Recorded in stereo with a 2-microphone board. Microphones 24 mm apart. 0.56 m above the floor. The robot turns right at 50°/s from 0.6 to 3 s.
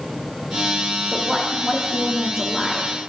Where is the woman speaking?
95° right, 0.6 m; by 2.9 s 5° right, 0.6 m.